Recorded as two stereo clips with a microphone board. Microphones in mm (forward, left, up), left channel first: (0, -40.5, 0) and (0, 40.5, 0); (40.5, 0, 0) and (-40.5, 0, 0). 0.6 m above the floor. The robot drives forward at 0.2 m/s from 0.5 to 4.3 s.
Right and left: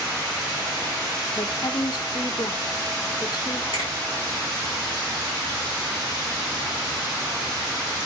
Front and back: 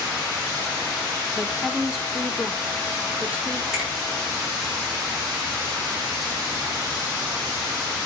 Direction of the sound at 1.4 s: 95° right.